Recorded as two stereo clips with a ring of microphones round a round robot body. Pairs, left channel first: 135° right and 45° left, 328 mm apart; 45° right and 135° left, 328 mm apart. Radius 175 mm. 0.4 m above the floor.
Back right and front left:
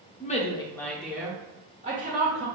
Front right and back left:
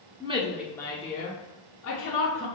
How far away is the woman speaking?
About 1.0 m.